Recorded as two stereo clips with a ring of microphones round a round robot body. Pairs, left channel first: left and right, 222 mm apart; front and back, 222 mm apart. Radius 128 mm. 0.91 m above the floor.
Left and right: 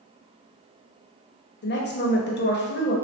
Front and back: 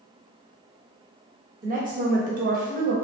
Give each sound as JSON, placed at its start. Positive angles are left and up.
{"t": 1.6, "sound": "a woman speaking", "azimuth_deg": 125, "distance_m": 0.9}